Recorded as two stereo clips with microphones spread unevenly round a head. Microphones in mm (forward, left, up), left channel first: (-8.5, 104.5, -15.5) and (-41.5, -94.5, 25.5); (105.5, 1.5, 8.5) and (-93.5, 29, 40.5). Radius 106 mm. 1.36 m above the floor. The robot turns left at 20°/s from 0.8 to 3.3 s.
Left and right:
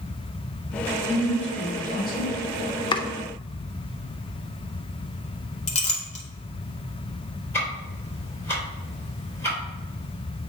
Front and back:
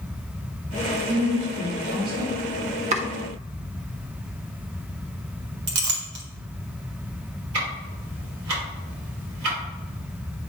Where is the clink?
140° left, 1.4 m.